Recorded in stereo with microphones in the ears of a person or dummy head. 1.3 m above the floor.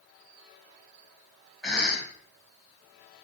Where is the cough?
5° left (ahead or behind), 1.0 m.